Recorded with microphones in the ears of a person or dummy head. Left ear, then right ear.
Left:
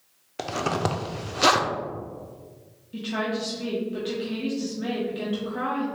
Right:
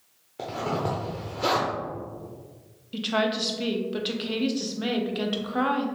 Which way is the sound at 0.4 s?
50° left (ahead or behind).